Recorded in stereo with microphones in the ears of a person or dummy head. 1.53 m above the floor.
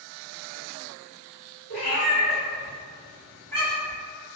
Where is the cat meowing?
50° left (ahead or behind), 1.4 m; by 4.0 s 5° right (ahead or behind), 1.1 m.